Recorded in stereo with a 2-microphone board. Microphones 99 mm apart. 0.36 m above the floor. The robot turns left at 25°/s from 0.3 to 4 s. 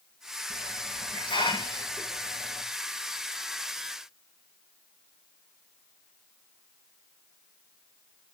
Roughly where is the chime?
I don't hear a chime.